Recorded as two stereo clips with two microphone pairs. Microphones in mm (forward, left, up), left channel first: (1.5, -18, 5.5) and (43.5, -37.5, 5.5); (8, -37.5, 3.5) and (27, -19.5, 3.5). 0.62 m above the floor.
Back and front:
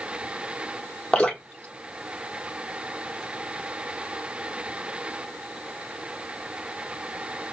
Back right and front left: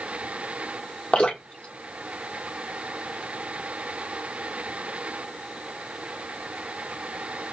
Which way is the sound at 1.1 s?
140° right.